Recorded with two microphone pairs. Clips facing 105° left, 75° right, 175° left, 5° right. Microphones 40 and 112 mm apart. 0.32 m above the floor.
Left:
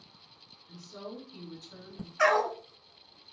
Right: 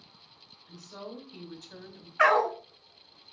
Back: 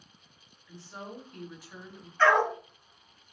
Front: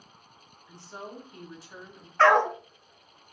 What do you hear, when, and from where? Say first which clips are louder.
0.7 s a woman speaking: even, front 1 dB; 60° right, 1.8 m
2.2 s a dog barking: right 3 dB, front 3 dB; 10° right, 0.7 m